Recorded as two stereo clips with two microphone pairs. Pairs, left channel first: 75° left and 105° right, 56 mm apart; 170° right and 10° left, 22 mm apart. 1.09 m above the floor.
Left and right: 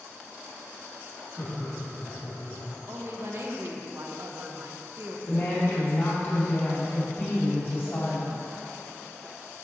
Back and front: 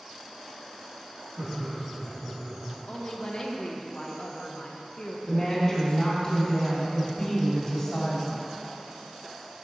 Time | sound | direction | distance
1.4 | laughter | 10° left | 2 m
2.9 | a woman speaking | 130° right | 1.1 m
5.3 | a woman speaking | 120° left | 2.5 m